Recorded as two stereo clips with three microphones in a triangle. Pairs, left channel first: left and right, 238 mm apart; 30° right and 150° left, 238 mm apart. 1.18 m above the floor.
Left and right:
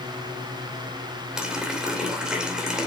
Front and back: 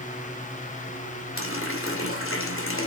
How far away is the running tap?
About 2.5 m.